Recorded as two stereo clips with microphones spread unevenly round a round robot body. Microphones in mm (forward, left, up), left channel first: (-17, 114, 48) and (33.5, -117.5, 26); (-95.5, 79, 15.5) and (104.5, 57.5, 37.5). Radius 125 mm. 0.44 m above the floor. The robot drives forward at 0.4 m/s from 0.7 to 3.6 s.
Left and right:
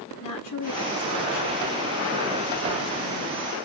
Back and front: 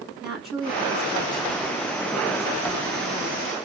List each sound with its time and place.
0.2 s a woman speaking: 85° left, 4.5 m; by 3.6 s 100° left, 4.5 m